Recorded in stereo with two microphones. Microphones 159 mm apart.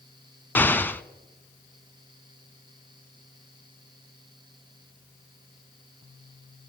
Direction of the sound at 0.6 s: 15° left (ahead or behind).